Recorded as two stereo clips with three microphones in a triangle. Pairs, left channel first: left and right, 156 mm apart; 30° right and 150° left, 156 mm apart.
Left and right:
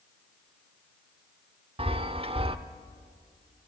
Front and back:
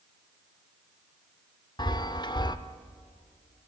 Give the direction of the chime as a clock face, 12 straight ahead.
2 o'clock.